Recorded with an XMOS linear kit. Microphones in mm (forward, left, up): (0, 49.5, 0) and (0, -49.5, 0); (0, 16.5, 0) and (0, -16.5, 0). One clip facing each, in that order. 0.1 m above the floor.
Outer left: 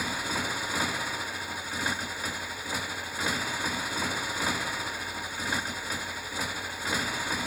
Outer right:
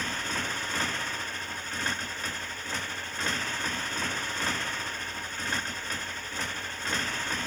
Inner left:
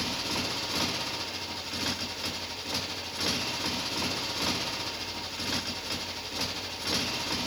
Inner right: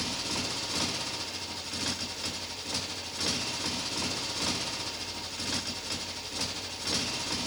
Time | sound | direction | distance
0.0 | a motorcycle | 10° left (ahead or behind) | ?